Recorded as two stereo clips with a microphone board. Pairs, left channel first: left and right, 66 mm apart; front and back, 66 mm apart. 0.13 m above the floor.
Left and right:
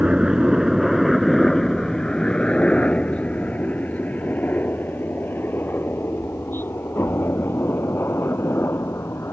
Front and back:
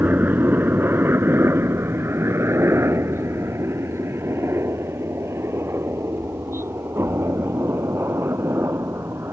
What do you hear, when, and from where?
0.0 s a helicopter: 155° right; by 9.3 s 135° left